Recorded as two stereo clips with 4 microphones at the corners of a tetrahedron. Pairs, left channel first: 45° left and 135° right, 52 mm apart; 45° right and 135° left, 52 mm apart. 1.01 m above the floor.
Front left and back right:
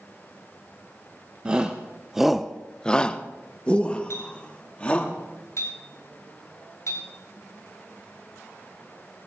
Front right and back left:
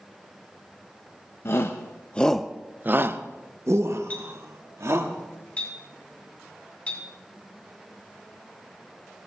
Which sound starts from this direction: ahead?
A clink, at 4.1 s.